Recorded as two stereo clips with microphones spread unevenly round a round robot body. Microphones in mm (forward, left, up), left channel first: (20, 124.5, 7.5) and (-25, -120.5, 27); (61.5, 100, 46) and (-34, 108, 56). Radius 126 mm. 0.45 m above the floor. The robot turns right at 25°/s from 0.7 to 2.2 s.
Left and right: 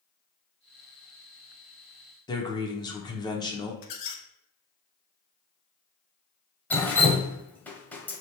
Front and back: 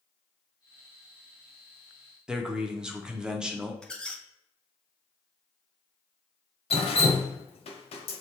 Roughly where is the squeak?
Left.